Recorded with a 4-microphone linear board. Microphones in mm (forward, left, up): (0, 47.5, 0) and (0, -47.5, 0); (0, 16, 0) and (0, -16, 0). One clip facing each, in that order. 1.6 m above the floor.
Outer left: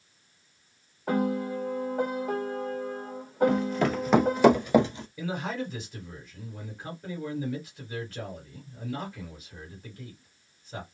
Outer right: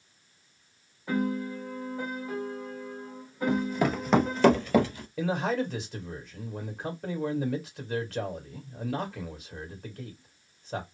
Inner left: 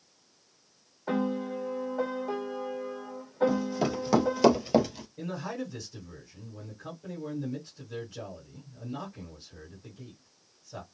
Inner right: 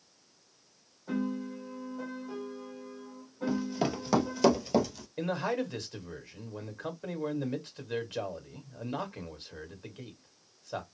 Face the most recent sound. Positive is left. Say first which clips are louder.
# outer right 5 dB, inner right 5 dB
turn(degrees=-75)  # may be behind; listen again after turning